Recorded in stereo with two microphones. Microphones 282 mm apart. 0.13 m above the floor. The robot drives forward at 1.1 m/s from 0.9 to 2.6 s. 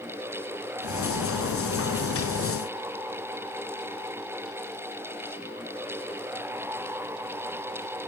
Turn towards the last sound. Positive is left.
No sound to turn to.